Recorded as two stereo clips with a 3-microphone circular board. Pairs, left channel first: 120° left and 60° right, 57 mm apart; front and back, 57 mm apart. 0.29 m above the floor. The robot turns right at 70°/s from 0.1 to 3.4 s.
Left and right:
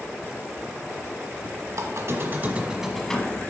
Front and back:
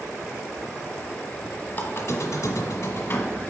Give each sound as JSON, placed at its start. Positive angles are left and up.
{"t": 1.7, "sound": "a squeak", "azimuth_deg": -50, "distance_m": 1.1}